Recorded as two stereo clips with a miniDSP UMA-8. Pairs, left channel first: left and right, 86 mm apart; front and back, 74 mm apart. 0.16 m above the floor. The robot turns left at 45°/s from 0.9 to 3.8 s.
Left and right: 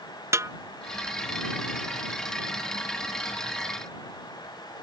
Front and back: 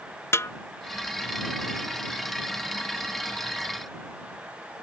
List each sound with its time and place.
0.3 s a snare drum: 45° right